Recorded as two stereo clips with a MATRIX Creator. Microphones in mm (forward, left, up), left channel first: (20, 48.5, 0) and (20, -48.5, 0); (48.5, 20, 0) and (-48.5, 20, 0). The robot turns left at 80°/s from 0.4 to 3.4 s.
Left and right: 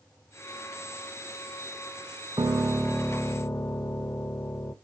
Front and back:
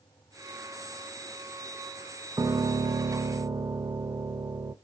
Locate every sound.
2.4 s a piano: 135° right, 0.5 m; by 4.7 s 145° left, 0.5 m